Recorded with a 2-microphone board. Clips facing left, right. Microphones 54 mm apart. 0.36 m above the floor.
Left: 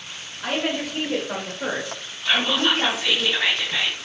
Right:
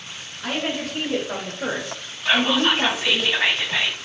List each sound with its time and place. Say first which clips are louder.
0.4 s a woman speaking: left 1 dB; 15° left (ahead or behind), 1.8 m; by 3.2 s 15° right (ahead or behind), 1.5 m
2.2 s whispering: right 2 dB; 15° right (ahead or behind), 1.6 m